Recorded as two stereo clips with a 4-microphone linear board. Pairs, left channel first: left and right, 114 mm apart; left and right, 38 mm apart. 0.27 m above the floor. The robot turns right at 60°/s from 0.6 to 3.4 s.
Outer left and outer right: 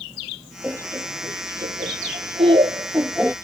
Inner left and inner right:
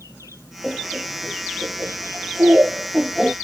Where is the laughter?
15° right (ahead or behind); by 3.3 s 5° right (ahead or behind).